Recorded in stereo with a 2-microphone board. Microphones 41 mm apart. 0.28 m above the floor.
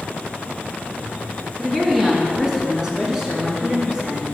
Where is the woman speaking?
Centre (ahead or behind), 2.5 m; by 4.2 s 15° right (ahead or behind), 3.5 m.